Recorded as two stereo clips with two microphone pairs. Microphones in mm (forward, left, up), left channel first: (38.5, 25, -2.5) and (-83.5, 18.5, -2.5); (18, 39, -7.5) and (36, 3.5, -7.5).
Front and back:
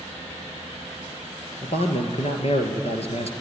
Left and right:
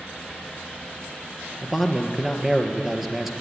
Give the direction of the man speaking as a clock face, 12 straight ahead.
11 o'clock.